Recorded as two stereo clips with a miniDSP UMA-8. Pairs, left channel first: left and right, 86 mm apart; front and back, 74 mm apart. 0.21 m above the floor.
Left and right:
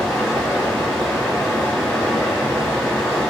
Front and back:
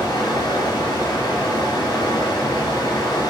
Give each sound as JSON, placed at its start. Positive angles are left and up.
{"t": 0.0, "sound": "running water", "azimuth_deg": 10, "distance_m": 1.0}